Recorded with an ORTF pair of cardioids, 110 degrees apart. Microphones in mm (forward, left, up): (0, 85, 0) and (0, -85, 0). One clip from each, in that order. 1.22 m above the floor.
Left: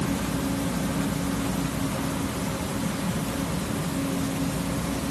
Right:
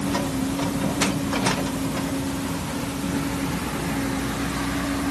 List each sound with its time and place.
Only background noise.